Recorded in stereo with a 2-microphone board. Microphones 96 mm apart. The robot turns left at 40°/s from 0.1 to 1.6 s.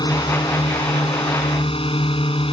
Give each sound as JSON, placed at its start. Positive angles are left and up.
{"t": 0.0, "sound": "a drone", "azimuth_deg": 130}